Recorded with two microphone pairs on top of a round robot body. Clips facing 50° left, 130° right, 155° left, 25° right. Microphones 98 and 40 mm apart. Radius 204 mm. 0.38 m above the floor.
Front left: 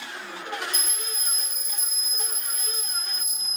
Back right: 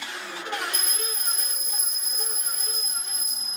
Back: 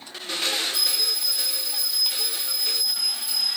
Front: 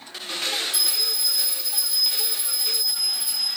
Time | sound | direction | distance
0.7 | a bell | 50° right | 1.0 m